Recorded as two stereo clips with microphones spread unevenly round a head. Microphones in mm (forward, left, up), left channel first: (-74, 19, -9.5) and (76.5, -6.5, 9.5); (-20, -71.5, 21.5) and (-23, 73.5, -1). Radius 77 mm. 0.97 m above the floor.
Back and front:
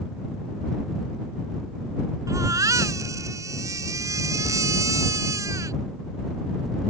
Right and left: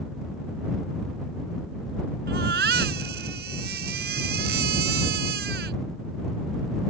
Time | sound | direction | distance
2.3 | a baby crying | 60° left | ?